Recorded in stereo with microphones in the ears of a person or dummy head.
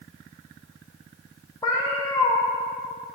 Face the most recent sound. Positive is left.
turn(degrees=20)  # may be behind; listen again after turning